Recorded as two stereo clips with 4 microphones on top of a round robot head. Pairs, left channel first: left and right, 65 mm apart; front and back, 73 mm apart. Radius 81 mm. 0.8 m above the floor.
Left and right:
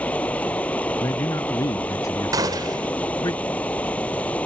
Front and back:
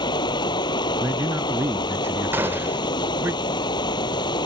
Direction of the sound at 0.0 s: 15° left.